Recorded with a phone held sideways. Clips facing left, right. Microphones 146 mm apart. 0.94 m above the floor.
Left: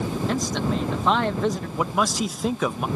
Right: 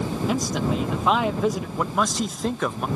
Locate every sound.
0.3 s a man speaking: 5° right (ahead or behind)
1.8 s a man speaking: 5° left (ahead or behind)